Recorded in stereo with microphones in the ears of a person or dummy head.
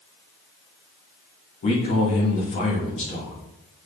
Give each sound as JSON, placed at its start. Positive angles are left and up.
{"t": 1.6, "sound": "a man speaking", "side_deg": 45, "distance_m": 1.1}